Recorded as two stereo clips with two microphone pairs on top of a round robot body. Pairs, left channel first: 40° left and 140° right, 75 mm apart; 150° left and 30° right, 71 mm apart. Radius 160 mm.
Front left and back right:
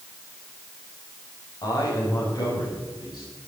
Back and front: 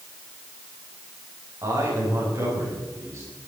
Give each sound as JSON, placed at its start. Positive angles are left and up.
{"t": 1.6, "sound": "a man speaking", "azimuth_deg": 5, "distance_m": 5.5}